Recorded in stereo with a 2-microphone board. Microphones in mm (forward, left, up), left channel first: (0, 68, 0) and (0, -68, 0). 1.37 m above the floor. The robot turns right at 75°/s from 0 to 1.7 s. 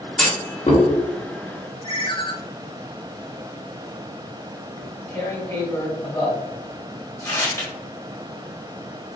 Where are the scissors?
I don't hear scissors.